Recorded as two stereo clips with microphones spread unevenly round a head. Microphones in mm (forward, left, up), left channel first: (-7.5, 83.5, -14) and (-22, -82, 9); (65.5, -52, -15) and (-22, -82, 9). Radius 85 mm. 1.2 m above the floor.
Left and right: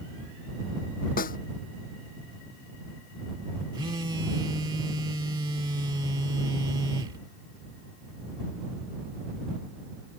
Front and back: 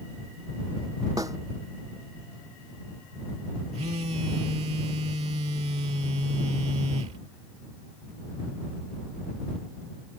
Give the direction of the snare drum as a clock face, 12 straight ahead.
8 o'clock.